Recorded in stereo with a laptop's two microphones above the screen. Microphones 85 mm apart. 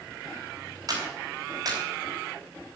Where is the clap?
45° right (ahead or behind), 4.5 m.